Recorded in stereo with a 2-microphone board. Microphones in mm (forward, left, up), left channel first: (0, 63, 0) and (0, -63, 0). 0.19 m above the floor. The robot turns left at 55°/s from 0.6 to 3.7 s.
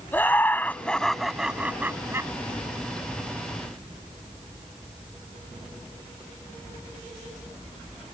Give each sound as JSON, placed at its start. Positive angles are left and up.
{"t": 0.1, "sound": "laughter", "side_deg": 15}